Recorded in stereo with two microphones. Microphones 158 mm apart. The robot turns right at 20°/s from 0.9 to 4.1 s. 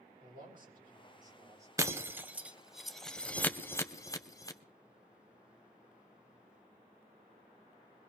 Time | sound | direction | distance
0.2 | a man speaking | 65° right (ahead or behind) | 7 m
1.8 | breaking glass | 20° right (ahead or behind) | 0.7 m